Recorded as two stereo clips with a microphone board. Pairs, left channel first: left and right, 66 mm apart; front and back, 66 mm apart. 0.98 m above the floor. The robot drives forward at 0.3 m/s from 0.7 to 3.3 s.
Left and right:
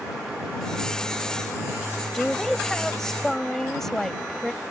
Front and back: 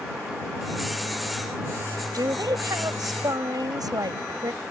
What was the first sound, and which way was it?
A woman speaking, 175° left.